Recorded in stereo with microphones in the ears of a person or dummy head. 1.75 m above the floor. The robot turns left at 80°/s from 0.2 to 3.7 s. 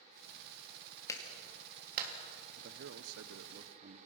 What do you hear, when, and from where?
1.1 s a clap: 20° left (ahead or behind), 3 m; by 2.1 s 65° right (ahead or behind), 3 m
2.6 s a man speaking: 55° right, 1.0 m; by 4.0 s 145° right, 1.0 m